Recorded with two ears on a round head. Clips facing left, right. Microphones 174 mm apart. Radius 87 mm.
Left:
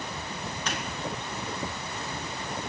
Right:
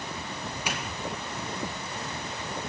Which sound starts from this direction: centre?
A doorbell, at 0.7 s.